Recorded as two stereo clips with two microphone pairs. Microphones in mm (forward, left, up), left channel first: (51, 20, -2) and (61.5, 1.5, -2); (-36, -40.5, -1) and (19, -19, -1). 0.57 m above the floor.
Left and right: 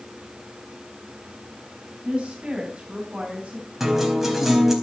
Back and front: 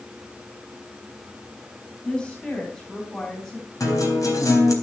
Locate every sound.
2.0 s a woman speaking: 90° right, 4.5 m; by 3.7 s 105° right, 4 m
3.8 s a guitar: 145° right, 4 m